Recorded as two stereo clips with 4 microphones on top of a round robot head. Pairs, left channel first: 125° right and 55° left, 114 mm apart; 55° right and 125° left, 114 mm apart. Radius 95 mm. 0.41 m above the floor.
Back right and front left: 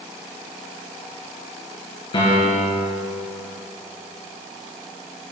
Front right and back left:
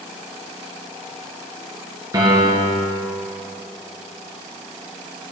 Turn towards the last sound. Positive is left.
turn(degrees=-175)